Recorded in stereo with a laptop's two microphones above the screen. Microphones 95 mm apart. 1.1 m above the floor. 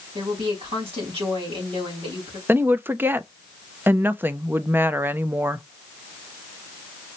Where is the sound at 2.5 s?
20° right (ahead or behind), 0.5 m.